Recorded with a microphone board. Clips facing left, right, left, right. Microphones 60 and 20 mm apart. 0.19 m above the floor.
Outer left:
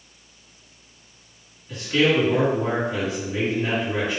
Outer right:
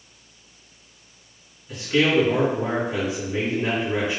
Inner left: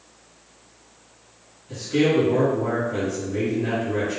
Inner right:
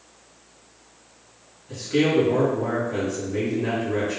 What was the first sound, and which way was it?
A man speaking, 15° right (ahead or behind).